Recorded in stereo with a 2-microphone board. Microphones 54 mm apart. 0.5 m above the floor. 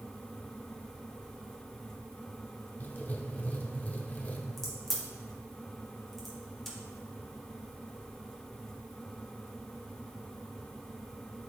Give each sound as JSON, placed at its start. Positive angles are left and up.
{"t": 2.8, "sound": "writing", "side_deg": 30, "distance_m": 0.9}
{"t": 4.6, "sound": "a crack", "side_deg": 5, "distance_m": 2.5}